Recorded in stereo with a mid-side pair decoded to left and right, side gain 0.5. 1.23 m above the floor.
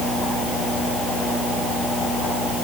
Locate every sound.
Only background noise.